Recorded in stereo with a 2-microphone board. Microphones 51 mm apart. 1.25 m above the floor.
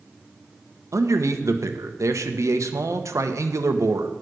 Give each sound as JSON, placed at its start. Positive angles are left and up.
{"t": 0.9, "sound": "a man speaking", "side_deg": -75, "distance_m": 1.0}